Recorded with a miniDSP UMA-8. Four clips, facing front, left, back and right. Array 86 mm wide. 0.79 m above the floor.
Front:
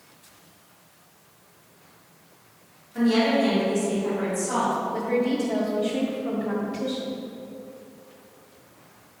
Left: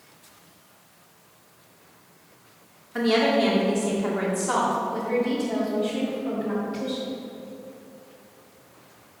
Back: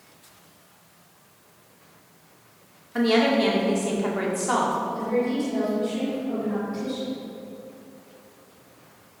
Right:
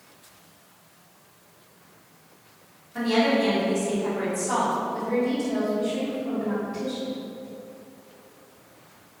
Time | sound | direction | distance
3.0 | a woman speaking | 150° left | 2 m
4.9 | a woman speaking | 10° left | 3 m